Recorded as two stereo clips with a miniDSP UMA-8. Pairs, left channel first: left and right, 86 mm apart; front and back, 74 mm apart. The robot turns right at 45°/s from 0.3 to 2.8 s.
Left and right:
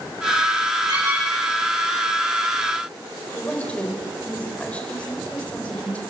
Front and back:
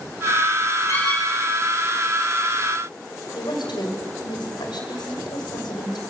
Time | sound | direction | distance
0.9 | a squeak | 50° right | 9 m
3.4 | a woman speaking | 15° left | 5.5 m